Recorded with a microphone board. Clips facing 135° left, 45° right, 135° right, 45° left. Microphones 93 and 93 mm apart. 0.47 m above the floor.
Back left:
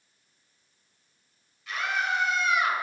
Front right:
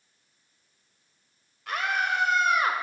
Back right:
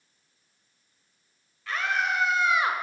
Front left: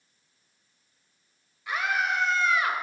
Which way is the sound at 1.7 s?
25° right.